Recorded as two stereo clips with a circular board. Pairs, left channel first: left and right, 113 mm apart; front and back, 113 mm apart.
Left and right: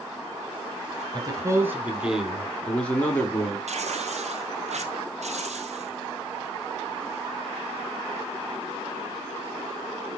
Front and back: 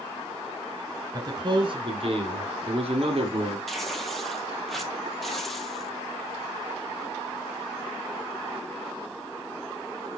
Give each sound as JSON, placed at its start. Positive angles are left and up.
{"t": 1.1, "sound": "a man speaking", "azimuth_deg": -135, "distance_m": 2.5}
{"t": 3.7, "sound": "tearing paper", "azimuth_deg": -90, "distance_m": 1.6}